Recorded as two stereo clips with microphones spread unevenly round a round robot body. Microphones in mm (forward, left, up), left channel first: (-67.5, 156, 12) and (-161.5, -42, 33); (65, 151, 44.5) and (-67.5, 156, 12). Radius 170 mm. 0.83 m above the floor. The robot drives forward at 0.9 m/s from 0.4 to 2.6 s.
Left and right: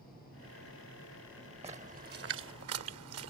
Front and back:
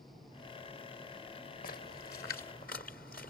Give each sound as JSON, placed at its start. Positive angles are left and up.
{"t": 1.6, "sound": "a splash", "azimuth_deg": -40}